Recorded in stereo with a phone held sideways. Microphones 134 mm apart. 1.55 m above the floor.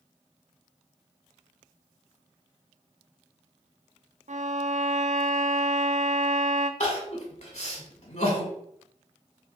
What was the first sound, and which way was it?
A violin, 65° right (ahead or behind).